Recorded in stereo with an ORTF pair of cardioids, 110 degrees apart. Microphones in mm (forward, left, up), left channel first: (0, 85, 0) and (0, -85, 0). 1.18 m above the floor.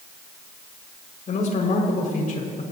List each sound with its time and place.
1.3 s a man speaking: 50° left, 5 m